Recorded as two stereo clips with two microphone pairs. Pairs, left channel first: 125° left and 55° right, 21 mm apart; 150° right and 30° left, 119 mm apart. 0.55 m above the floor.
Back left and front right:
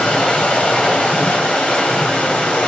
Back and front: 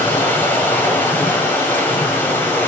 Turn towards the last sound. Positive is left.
turn(degrees=135)